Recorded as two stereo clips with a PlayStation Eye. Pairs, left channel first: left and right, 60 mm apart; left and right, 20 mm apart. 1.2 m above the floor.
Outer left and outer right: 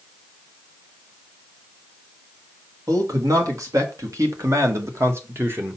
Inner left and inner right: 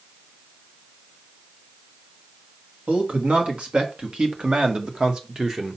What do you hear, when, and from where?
2.9 s a man speaking: 75° right (ahead or behind), 2.5 m; by 5.8 s 30° right (ahead or behind), 1.4 m